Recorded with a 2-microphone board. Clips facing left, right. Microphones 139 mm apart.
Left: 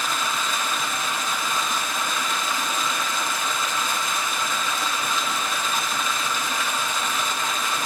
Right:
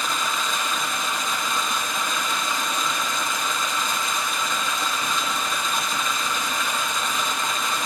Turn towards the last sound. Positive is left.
turn(degrees=5)  # may be behind; listen again after turning